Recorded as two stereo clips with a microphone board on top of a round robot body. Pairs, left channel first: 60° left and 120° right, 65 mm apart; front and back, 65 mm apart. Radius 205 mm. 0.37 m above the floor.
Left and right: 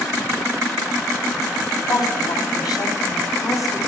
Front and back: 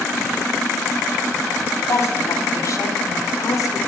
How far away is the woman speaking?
About 5 m.